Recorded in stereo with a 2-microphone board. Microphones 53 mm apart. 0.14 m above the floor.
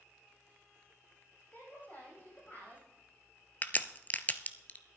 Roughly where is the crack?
Left.